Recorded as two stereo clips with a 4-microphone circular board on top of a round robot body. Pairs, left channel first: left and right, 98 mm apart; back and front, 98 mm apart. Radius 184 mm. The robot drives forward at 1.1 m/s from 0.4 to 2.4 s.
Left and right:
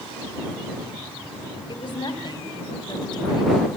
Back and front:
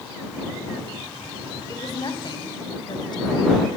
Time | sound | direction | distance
1.7 | a woman speaking | 130° left | 4.5 m